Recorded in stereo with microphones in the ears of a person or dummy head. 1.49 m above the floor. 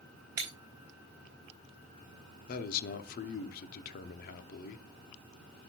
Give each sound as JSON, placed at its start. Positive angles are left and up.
{"t": 0.4, "sound": "breaking glass", "side_deg": -25, "distance_m": 1.2}
{"t": 2.5, "sound": "a man speaking", "side_deg": 55, "distance_m": 0.7}